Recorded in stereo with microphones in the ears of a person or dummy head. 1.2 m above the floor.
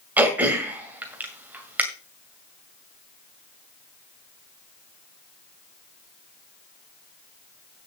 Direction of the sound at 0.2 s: 15° right (ahead or behind).